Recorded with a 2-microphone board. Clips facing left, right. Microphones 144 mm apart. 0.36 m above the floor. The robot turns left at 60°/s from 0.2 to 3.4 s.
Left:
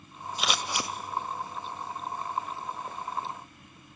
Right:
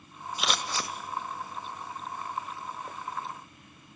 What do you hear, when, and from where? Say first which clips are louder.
0.4 s scissors: left 1 dB; centre (ahead or behind), 1.0 m; by 0.9 s 25° left (ahead or behind), 1.0 m